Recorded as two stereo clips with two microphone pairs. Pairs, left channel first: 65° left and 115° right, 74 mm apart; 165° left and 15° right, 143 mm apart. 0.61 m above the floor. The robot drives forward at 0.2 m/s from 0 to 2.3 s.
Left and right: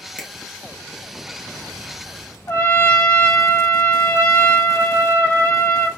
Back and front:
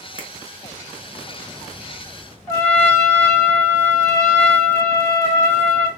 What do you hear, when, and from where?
0.2 s a finger snap: 15° left, 0.9 m
2.5 s a trumpet: 100° left, 2.5 m